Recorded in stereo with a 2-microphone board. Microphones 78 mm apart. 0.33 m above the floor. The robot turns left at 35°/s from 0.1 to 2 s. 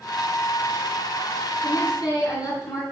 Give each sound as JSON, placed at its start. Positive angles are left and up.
{"t": 1.6, "sound": "a woman speaking", "side_deg": 60, "distance_m": 4.5}